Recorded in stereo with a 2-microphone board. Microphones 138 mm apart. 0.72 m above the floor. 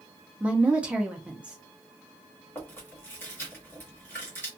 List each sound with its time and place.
0.4 s a woman speaking: 10° right (ahead or behind), 0.6 m
2.5 s chewing: 15° left (ahead or behind), 1.5 m